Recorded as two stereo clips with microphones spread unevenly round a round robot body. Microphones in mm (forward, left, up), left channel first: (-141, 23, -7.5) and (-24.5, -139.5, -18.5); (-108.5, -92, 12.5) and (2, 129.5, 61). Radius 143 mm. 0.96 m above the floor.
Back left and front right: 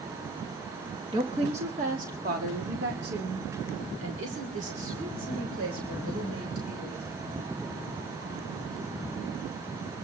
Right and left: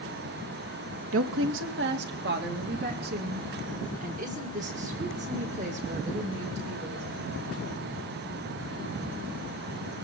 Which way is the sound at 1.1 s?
20° left.